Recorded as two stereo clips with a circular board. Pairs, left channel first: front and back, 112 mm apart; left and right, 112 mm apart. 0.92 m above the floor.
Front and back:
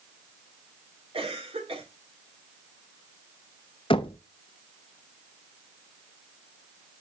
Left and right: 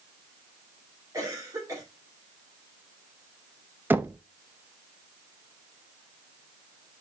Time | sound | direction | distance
1.1 | a cough | 150° right | 3 m
3.9 | knocking | 20° right | 0.5 m